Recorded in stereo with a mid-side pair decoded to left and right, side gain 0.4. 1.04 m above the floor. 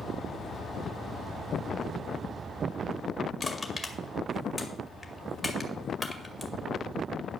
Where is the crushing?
15° left, 1.9 m.